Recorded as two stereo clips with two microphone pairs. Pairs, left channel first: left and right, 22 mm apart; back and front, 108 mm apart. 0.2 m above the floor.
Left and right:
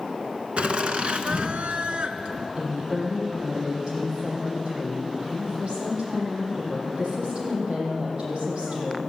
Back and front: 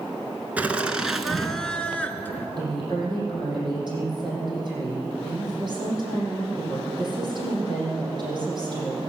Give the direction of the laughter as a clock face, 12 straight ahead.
2 o'clock.